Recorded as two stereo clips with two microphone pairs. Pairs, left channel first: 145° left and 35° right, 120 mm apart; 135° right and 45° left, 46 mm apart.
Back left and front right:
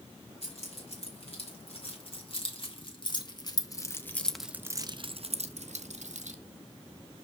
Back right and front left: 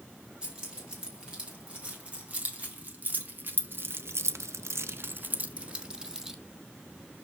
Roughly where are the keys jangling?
Left.